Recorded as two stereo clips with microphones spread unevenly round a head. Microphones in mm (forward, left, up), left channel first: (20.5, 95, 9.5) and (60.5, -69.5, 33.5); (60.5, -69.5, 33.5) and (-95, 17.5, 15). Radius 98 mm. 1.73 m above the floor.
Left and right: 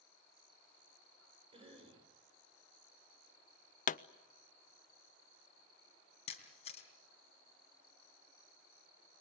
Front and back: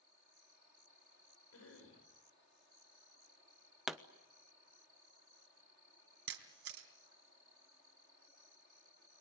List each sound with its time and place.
1.5 s a cough: 20° right, 8 m
3.9 s a pop: 60° left, 0.7 m
6.3 s a camera shutter: 165° left, 3 m